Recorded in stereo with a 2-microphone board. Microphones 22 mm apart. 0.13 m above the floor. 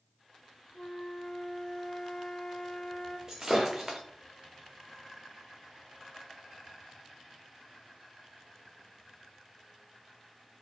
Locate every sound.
0.7 s a flute: 50° left (ahead or behind), 1.9 m
3.3 s breaking glass: 20° right (ahead or behind), 1.0 m